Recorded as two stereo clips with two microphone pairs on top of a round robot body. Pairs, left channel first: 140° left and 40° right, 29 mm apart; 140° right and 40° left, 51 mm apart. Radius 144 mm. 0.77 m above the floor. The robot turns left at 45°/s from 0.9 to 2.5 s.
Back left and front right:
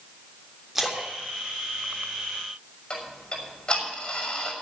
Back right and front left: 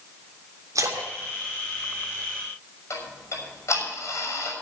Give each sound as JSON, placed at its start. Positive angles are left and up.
{"t": 0.8, "sound": "a splash", "azimuth_deg": 40, "distance_m": 3.0}
{"t": 2.9, "sound": "ticking", "azimuth_deg": -165, "distance_m": 6.0}